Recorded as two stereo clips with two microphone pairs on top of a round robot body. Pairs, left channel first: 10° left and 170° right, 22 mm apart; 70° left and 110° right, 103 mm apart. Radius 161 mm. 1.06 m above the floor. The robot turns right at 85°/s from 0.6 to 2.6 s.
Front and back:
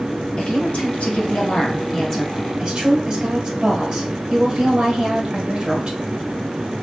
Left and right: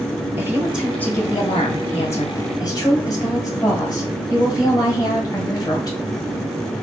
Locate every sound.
0.4 s a woman speaking: 40° right, 1.6 m; by 6.0 s 130° left, 1.6 m